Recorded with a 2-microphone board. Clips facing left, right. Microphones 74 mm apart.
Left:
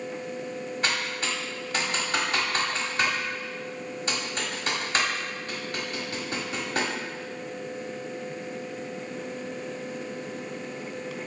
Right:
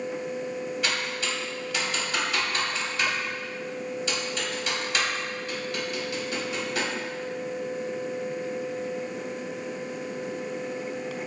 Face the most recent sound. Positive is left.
turn(degrees=40)  # may be behind; listen again after turning